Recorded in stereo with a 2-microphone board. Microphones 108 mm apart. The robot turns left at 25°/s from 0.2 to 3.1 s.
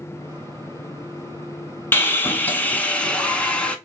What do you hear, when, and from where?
1.9 s sawing: 20° left (ahead or behind), 0.5 m; by 3.8 s 10° left (ahead or behind), 0.5 m